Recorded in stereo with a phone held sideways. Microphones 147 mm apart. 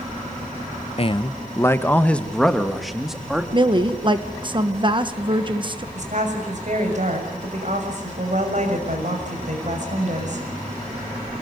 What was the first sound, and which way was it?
A man speaking, 40° left (ahead or behind).